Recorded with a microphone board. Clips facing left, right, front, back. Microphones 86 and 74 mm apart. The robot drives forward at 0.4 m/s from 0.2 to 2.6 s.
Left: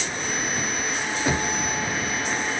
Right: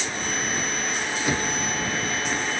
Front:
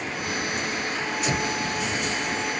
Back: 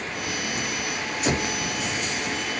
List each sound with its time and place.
1.2 s knocking: 150° left, 1.3 m